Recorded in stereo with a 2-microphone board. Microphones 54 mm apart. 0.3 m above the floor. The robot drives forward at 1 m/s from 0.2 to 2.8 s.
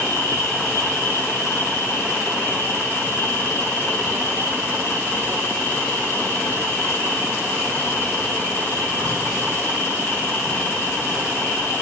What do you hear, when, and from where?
0.0 s an insect: 70° left (ahead or behind), 2.5 m; by 11.8 s 50° left (ahead or behind), 3.5 m